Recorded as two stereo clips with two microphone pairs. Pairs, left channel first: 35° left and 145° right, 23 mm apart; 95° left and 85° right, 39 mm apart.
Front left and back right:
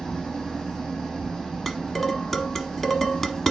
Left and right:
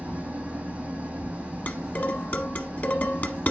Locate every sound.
0.0 s an engine running: 30° right, 3 m
1.7 s dishes clattering: 95° left, 1.0 m